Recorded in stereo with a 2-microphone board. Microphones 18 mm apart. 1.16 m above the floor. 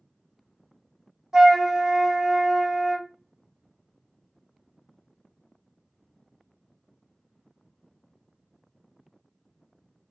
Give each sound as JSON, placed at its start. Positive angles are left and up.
{"t": 1.3, "sound": "a flute", "side_deg": -35, "distance_m": 0.9}